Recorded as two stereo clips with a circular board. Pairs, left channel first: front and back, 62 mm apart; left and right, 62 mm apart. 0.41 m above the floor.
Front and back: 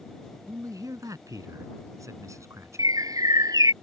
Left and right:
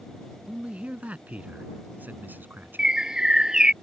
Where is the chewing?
No chewing in this recording.